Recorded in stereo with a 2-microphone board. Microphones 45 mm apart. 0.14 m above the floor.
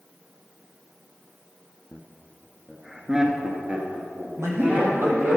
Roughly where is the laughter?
Centre.